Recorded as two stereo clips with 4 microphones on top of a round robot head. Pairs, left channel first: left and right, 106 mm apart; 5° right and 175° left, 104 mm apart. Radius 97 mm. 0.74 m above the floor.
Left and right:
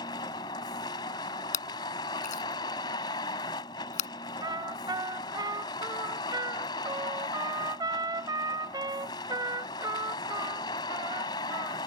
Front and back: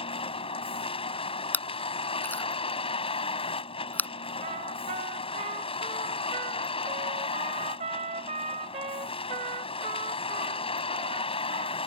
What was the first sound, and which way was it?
A vehicle, 30° left.